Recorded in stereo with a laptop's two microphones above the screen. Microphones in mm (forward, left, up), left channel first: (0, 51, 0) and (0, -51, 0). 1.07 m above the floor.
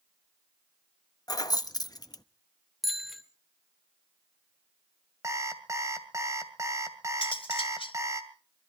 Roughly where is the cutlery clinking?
Left.